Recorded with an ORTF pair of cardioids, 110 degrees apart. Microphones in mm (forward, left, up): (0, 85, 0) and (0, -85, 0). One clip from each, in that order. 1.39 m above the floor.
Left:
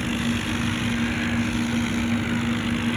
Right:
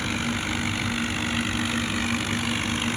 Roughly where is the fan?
Ahead.